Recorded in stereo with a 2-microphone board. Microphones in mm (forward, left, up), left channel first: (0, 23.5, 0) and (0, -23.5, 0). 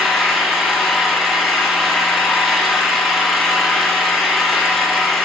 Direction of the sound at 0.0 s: 5° right (ahead or behind).